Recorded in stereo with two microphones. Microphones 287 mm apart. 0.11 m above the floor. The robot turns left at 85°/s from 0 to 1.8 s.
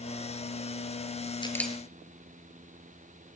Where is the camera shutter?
15° left (ahead or behind), 1.4 m; by 1.8 s 5° right (ahead or behind), 1.4 m.